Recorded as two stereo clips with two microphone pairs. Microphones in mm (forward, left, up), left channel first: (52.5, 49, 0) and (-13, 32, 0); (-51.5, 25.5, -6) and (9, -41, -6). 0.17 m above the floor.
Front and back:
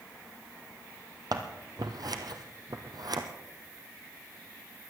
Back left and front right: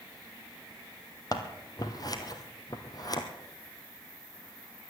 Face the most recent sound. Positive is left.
turn(degrees=180)